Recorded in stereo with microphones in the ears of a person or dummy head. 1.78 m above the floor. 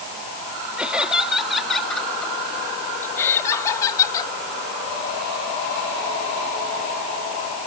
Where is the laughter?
10° right (ahead or behind); by 4.3 s 20° left (ahead or behind).